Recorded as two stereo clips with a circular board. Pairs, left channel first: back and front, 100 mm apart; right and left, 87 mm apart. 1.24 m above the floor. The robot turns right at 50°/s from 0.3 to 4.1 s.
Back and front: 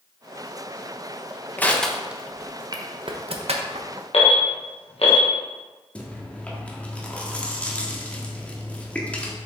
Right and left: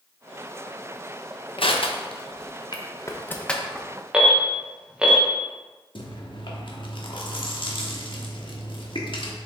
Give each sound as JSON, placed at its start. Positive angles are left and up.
{"t": 1.6, "sound": "crushing", "azimuth_deg": -110, "distance_m": 0.8}
{"t": 4.1, "sound": "an alarm", "azimuth_deg": 170, "distance_m": 1.5}
{"t": 6.0, "sound": "chewing", "azimuth_deg": -105, "distance_m": 1.2}